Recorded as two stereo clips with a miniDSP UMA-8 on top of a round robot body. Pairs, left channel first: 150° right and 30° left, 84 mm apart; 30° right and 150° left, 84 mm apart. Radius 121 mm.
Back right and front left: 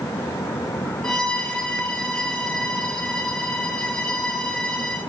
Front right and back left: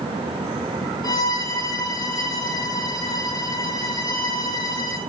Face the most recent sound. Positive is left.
turn(degrees=-60)